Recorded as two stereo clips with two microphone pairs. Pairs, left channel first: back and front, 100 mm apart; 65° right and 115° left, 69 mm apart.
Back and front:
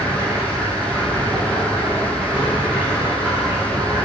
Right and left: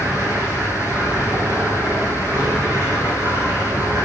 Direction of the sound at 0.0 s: 70° left.